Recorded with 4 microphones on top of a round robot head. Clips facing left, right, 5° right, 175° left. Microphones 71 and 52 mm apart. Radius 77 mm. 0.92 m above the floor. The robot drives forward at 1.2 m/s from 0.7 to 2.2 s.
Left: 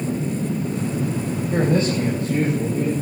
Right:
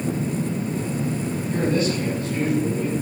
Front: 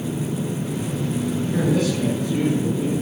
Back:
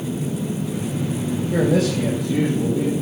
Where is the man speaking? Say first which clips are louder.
Left 3 dB, back 3 dB; 150° left, 4 m; by 2.9 s 155° left, 5 m.